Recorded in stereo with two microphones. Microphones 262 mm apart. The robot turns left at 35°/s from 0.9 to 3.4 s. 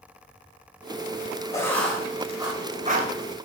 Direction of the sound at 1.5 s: 15° left (ahead or behind).